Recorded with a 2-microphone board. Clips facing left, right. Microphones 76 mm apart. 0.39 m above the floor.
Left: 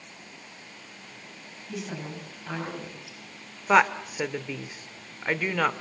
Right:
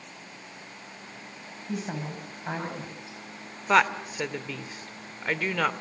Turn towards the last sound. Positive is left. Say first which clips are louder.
# left 2 dB
turn(degrees=5)  # may be behind; listen again after turning